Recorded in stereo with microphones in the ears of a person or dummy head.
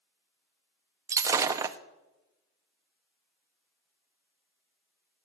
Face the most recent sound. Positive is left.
turn(degrees=-20)  # may be behind; listen again after turning